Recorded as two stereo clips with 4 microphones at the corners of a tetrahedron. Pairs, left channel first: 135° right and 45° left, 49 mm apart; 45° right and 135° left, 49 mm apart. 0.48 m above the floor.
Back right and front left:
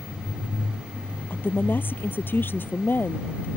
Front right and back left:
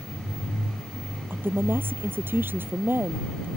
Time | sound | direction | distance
1.3 | a woman speaking | straight behind | ?